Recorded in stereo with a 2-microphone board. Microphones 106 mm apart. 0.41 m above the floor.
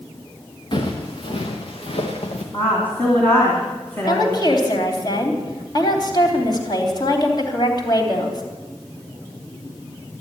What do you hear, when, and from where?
0.7 s footsteps: 50° left (ahead or behind), 3 m; by 2.4 s 70° left (ahead or behind), 3.5 m
2.5 s a woman speaking: 20° left (ahead or behind), 3 m
4.1 s a woman speaking: 40° left (ahead or behind), 3 m